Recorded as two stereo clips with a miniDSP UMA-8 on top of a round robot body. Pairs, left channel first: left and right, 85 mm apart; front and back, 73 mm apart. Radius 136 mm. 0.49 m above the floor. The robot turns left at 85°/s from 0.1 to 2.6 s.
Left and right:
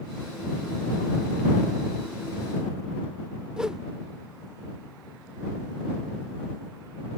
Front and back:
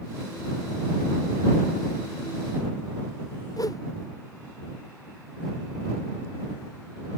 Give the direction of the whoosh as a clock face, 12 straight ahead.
12 o'clock.